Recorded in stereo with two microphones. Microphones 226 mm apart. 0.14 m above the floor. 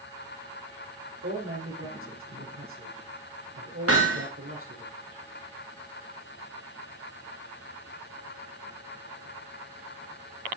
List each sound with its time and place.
1.2 s a man speaking: 75° right (ahead or behind), 5.5 m
3.9 s hammering: 85° right, 6 m